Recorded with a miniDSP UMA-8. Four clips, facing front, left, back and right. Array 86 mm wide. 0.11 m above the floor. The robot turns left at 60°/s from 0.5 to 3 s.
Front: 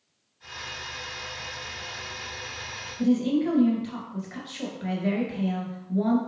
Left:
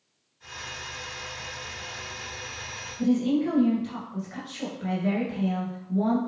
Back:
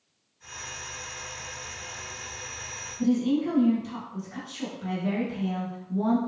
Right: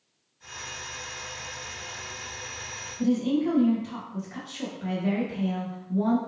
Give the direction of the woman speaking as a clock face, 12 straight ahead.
12 o'clock.